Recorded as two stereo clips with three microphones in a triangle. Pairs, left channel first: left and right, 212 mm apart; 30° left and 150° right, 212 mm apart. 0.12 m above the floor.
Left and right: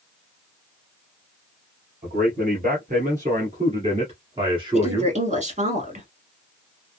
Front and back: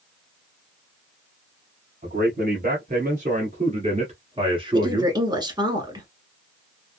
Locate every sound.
2.0 s a man speaking: 120° right, 2.5 m; by 5.2 s 125° right, 1.2 m
4.7 s a woman speaking: 95° right, 1.3 m